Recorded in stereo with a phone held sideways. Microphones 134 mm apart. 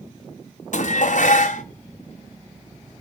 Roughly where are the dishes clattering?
Left.